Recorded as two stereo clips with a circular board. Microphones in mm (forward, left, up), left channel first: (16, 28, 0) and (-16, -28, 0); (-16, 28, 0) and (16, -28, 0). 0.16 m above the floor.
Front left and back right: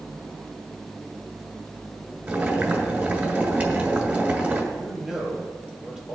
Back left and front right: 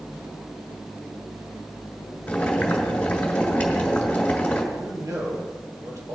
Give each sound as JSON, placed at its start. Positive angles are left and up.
{"t": 2.3, "sound": "boiling", "azimuth_deg": -175, "distance_m": 2.0}
{"t": 4.7, "sound": "a man speaking", "azimuth_deg": -35, "distance_m": 4.0}